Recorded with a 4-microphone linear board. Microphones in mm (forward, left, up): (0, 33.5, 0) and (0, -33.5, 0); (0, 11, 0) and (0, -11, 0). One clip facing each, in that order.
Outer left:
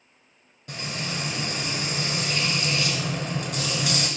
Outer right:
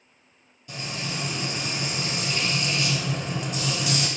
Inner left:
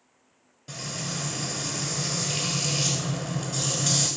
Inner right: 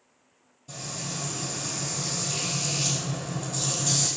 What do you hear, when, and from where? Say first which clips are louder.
0.7 s frying: outer left 1 dB, inner left 2 dB; 60° left (ahead or behind), 0.8 m